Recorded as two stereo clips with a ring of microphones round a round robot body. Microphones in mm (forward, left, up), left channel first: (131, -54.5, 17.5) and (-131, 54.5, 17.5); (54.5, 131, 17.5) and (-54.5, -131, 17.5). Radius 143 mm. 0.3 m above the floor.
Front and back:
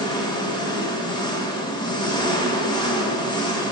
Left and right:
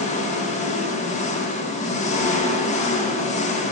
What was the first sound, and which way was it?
An engine running, 35° left.